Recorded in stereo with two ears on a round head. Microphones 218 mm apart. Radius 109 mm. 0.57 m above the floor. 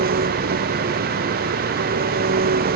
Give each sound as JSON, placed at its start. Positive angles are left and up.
{"t": 0.0, "sound": "an engine running", "side_deg": -40}